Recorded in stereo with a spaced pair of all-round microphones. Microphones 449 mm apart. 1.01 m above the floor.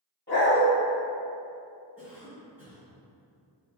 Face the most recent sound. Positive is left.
turn(degrees=30)  # may be behind; listen again after turning